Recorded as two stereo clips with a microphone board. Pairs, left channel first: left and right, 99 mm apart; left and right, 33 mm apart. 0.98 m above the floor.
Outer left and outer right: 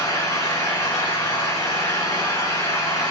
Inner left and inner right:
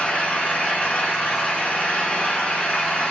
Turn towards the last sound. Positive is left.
turn(degrees=30)  # may be behind; listen again after turning